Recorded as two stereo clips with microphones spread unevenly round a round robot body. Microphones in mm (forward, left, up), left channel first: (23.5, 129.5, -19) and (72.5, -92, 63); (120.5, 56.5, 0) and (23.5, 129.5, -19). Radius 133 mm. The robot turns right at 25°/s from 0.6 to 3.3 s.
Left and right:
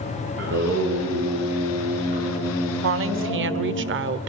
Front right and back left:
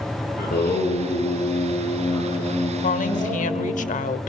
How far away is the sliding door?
I don't hear a sliding door.